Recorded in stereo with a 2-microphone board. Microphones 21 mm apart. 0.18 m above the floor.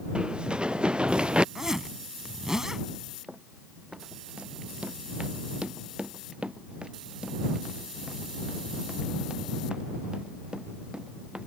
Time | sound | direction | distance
0.1 | running footsteps | 45° right (ahead or behind) | ?
1.6 | a zipper | 25° right (ahead or behind) | ?
3.3 | running footsteps | 65° right (ahead or behind) | ?